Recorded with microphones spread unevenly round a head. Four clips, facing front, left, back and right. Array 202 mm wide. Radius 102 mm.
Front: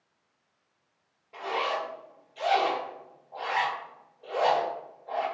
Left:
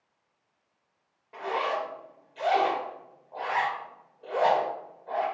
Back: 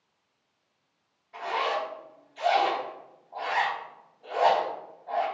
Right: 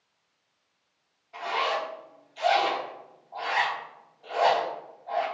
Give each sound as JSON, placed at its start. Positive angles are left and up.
{"t": 1.3, "sound": "a zipper", "azimuth_deg": 60, "distance_m": 2.5}